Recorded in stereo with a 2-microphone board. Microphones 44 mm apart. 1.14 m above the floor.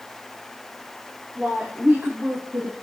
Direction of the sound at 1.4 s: 30° right (ahead or behind).